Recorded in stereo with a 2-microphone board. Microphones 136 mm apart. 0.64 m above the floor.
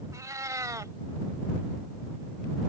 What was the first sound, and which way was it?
A cat meowing, 25° right (ahead or behind).